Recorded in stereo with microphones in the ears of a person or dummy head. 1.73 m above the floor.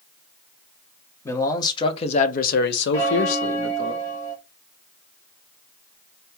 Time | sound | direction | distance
1.2 | a man speaking | 15° left (ahead or behind) | 1.0 m
2.9 | a bell | 20° left (ahead or behind) | 1.7 m